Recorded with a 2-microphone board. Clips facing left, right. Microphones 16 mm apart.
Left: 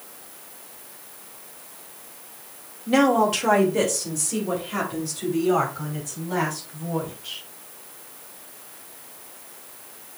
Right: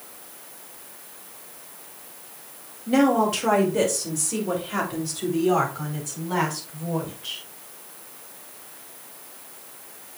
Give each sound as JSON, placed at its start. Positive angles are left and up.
{"t": 2.9, "sound": "a woman speaking", "side_deg": 20, "distance_m": 1.8}